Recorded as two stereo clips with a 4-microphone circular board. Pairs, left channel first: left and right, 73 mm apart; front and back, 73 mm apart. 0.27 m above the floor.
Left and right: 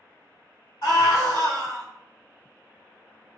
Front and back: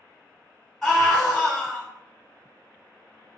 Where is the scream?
85° left, 1.8 m.